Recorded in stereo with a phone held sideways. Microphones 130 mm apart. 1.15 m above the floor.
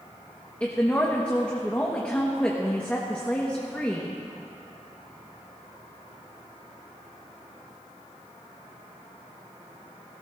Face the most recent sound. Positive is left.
turn(degrees=10)  # may be behind; listen again after turning